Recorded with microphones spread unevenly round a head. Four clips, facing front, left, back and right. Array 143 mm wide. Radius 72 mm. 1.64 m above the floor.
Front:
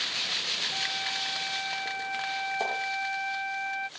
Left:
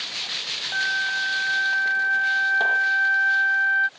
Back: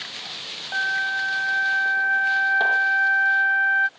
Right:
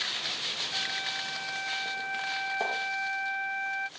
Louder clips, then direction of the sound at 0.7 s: Left 14 dB, back 13 dB; 150° left.